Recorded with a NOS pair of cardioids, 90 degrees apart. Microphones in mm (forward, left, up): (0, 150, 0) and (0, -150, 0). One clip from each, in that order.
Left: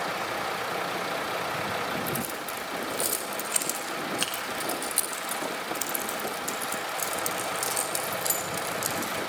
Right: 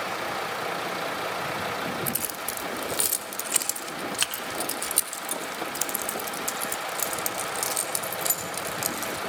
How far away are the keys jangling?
About 4 m.